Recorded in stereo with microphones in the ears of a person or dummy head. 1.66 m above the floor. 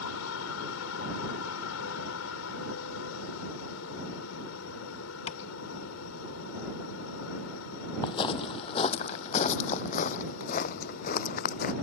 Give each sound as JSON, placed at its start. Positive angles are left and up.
{"t": 0.0, "sound": "a helicopter", "side_deg": 75}
{"t": 5.3, "sound": "tapping", "side_deg": 35}
{"t": 8.0, "sound": "footsteps", "side_deg": 25}